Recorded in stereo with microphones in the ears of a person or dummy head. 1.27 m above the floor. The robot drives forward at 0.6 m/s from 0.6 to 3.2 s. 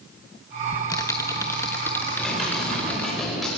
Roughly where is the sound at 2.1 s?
Centre.